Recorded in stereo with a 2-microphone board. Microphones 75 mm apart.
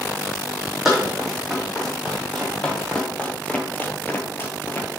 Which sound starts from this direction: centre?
Running footsteps, at 0.8 s.